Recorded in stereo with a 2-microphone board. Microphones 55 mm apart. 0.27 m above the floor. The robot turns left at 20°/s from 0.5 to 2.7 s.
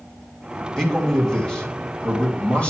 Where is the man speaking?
5° left (ahead or behind), 1.7 m; by 2.7 s 20° left (ahead or behind), 1.7 m.